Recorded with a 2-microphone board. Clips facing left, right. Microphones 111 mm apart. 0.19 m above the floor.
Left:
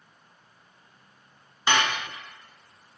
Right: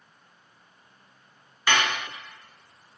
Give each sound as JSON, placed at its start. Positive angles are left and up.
{"t": 1.7, "sound": "dishes clattering", "side_deg": 25, "distance_m": 0.7}